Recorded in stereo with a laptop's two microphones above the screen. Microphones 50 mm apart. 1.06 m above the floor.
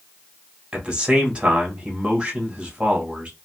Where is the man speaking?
20° right (ahead or behind), 1.6 m.